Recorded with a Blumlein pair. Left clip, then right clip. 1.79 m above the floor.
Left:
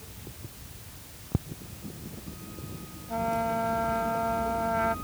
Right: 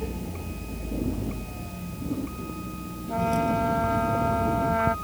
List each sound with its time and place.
0.0 s a vehicle: 40° right; by 5.0 s 75° right
3.1 s a trumpet: 10° right